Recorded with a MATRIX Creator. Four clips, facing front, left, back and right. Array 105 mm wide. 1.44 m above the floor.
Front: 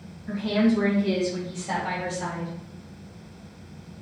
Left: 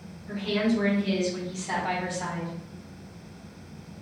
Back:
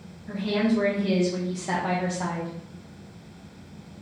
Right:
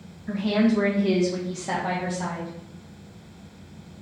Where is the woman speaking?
75° right, 1.6 m; by 2.5 s 170° right, 1.2 m.